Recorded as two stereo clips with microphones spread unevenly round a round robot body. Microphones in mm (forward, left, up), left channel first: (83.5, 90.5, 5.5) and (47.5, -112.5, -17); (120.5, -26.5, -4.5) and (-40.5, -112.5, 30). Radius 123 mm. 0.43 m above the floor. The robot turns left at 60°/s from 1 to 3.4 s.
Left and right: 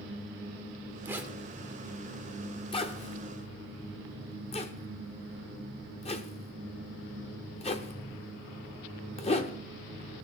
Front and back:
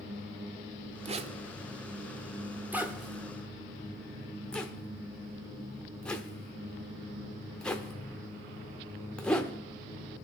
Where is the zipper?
145° right, 0.8 m; by 9.6 s 75° left, 0.8 m.